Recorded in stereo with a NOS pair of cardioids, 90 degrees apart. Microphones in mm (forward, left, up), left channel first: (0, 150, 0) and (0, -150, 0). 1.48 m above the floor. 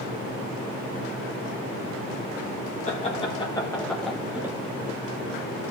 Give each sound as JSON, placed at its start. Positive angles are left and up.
{"t": 2.9, "sound": "laughter", "azimuth_deg": 25, "distance_m": 1.6}